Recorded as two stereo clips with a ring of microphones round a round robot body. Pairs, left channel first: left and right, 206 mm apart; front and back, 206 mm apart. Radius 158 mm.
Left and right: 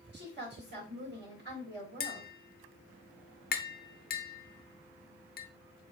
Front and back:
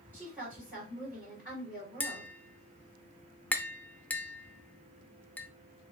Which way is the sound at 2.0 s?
80° left.